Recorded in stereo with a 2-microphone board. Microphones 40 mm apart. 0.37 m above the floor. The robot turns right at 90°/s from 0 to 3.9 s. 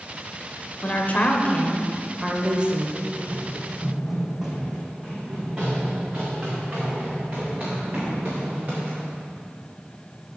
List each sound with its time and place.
0.8 s a woman speaking: 60° left, 1.0 m; by 2.9 s 110° right, 1.0 m
3.0 s running footsteps: 55° right (ahead or behind), 0.9 m; by 9.2 s 45° right (ahead or behind), 4 m